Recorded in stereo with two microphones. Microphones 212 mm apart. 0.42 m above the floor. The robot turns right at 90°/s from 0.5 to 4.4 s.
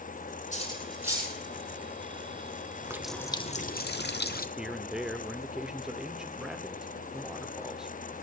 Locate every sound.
0.5 s cutlery clinking: 40° left (ahead or behind), 8.5 m; by 1.3 s 30° right (ahead or behind), 8.5 m
2.8 s a running tap: 20° right, 0.9 m; by 4.5 s 120° left, 0.9 m
4.6 s a man speaking: 5° right (ahead or behind), 0.8 m